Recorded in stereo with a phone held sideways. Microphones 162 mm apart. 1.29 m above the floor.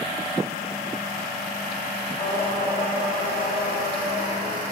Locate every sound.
2.2 s singing: 65° left (ahead or behind), 2 m